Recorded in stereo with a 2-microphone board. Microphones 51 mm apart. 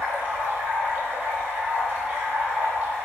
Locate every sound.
0.0 s running water: 30° right (ahead or behind), 1.1 m